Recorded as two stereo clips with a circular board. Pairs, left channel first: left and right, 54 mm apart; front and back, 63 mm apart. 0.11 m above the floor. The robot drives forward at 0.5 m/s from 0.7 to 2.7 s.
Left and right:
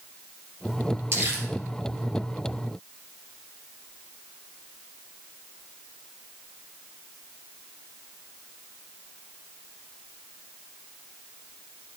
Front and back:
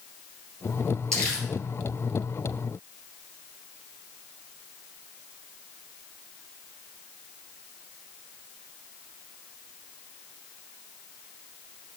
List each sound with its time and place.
1.1 s crumpling: 70° right, 3 m